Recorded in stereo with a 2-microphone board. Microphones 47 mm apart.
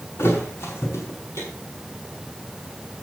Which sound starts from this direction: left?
A thud, at 0.2 s.